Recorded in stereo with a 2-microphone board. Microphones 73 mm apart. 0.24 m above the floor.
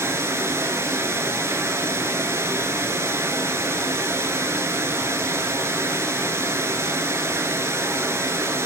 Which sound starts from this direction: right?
Running water, at 0.0 s.